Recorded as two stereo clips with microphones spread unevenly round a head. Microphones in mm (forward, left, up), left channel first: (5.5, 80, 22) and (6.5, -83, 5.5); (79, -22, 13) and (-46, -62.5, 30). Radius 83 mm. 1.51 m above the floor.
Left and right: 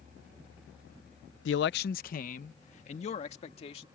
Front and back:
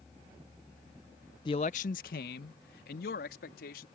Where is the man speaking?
85° left; by 3.9 s 35° left.